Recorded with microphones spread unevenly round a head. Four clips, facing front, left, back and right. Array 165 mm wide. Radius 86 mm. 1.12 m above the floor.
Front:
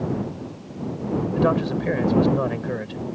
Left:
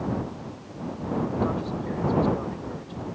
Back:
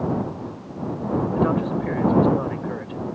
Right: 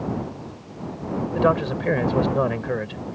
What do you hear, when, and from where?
1.3 s a man speaking: 60° right